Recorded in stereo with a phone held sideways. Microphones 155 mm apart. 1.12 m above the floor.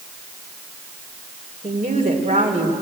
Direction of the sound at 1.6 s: 55° right (ahead or behind).